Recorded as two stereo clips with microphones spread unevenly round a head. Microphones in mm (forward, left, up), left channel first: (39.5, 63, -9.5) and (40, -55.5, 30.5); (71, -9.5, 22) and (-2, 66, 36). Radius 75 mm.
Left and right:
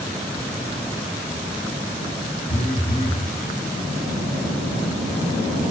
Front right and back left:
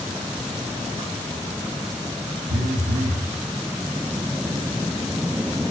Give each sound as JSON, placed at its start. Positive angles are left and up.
{"t": 2.5, "sound": "a phone buzzing", "azimuth_deg": 140, "distance_m": 1.5}